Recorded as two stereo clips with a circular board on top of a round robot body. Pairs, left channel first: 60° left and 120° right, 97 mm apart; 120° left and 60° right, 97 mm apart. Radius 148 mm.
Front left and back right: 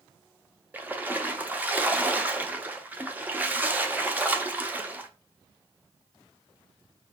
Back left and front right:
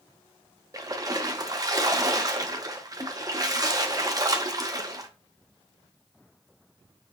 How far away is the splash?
About 0.9 m.